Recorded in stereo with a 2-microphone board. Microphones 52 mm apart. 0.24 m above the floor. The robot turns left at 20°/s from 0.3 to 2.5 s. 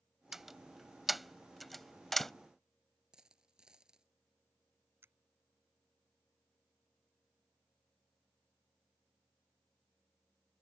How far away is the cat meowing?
No cat meowing in this recording.